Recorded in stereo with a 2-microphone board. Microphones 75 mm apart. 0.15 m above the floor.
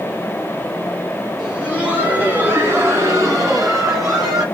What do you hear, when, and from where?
1.4 s laughter: 15° right (ahead or behind), 2.5 m; by 4.5 s 45° right (ahead or behind), 2 m